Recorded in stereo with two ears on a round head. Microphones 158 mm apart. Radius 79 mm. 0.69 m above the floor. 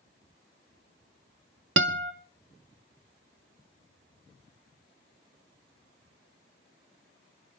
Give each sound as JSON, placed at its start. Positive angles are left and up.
{"t": 1.8, "sound": "a guitar", "side_deg": -75, "distance_m": 1.4}